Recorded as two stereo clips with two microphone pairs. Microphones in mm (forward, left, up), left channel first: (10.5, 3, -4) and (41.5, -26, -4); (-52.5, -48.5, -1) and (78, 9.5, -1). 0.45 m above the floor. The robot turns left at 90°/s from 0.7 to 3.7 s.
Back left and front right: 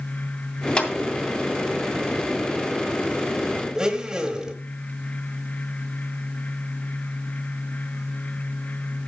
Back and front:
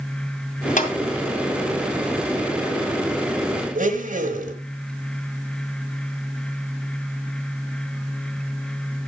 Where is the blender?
30° left, 1.2 m.